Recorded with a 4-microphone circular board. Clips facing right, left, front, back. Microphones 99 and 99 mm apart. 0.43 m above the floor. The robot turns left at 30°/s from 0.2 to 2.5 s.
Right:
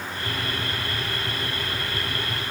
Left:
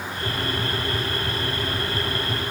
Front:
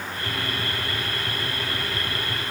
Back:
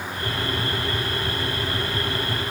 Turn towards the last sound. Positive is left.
No sound to turn to.